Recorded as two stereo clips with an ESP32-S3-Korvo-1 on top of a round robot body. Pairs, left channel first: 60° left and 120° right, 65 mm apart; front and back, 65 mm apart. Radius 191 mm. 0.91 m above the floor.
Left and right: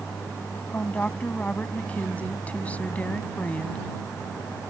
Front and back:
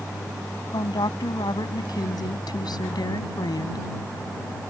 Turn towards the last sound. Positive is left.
turn(degrees=-10)